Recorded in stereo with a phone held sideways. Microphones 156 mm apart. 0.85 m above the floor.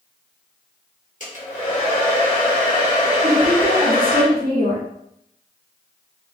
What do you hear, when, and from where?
1.2 s a hair dryer: 55° left (ahead or behind), 1.1 m
3.2 s a woman speaking: 65° right (ahead or behind), 1.5 m